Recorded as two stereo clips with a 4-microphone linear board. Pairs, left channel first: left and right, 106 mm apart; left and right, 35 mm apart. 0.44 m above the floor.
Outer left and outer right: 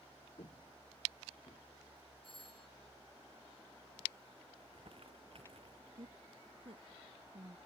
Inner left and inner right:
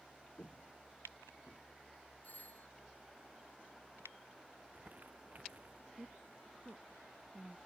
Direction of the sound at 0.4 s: 55° left (ahead or behind).